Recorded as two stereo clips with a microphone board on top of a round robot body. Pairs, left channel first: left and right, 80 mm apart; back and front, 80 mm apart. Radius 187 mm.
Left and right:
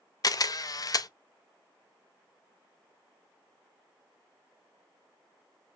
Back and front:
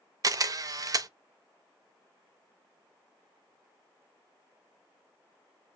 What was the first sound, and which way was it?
A camera shutter, 45° left.